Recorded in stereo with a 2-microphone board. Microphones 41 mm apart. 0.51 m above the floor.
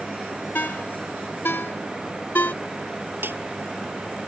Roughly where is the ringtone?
Left.